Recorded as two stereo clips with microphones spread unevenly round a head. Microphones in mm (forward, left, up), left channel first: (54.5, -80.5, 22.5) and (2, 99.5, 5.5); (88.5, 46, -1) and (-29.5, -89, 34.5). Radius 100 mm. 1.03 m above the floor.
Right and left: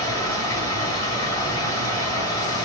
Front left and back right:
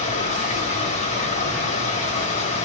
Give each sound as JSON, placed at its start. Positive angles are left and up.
{"t": 0.0, "sound": "running water", "azimuth_deg": -5, "distance_m": 1.5}